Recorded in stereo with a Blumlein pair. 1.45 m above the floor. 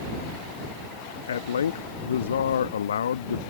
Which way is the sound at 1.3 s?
65° left.